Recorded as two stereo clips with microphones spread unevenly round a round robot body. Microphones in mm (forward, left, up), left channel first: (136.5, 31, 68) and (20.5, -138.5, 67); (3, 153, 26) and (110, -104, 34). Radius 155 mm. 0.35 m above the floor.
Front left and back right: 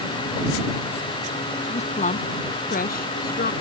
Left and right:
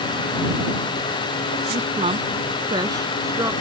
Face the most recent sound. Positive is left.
turn(degrees=15)